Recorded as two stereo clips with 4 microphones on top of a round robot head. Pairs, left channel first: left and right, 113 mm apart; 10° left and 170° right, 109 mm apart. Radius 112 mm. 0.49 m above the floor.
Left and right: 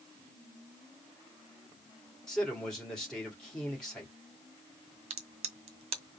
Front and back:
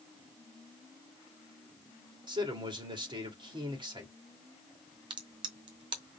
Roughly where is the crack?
Behind right.